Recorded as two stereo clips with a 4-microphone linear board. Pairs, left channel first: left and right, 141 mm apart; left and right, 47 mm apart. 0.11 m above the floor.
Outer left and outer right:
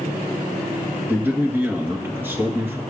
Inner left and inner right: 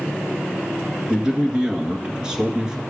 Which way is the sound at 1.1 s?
15° right (ahead or behind).